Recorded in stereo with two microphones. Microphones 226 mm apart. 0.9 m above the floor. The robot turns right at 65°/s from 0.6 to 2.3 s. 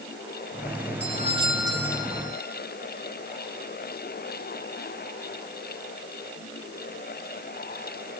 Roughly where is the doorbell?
Ahead right.